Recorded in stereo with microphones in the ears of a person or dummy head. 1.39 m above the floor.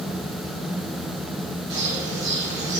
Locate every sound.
1.7 s a bird: 60° right (ahead or behind), 3.5 m